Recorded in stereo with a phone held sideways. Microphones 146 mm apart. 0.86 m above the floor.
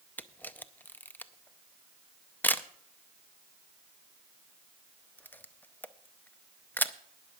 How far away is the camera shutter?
About 0.5 m.